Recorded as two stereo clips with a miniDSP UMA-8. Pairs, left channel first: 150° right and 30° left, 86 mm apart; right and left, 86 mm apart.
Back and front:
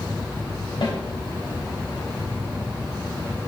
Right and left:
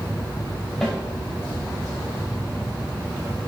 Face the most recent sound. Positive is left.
turn(degrees=180)